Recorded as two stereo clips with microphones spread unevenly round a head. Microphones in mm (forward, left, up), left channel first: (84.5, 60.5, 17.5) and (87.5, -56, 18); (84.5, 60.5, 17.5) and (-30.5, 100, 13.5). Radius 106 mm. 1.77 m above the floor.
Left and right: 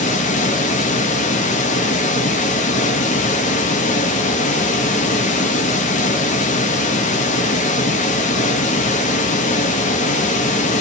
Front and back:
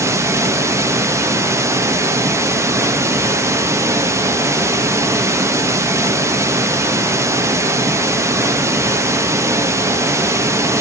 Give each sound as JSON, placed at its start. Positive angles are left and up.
{"t": 0.0, "sound": "running water", "azimuth_deg": 95, "distance_m": 0.8}